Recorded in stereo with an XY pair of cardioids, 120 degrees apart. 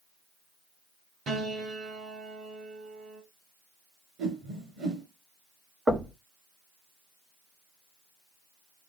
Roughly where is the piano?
Ahead right.